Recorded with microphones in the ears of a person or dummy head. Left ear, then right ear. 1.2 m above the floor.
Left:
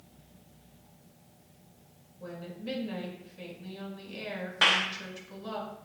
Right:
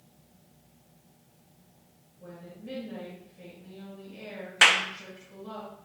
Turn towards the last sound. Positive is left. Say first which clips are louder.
# right 4 dB
turn(degrees=-50)  # may be behind; listen again after turning